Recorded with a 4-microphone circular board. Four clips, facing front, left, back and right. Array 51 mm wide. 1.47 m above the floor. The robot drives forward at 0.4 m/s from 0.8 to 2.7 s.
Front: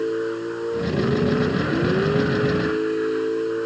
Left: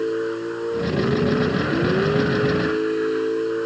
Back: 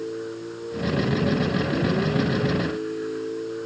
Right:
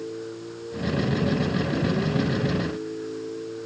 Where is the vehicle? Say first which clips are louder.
Left 11 dB, front 7 dB; 55° left.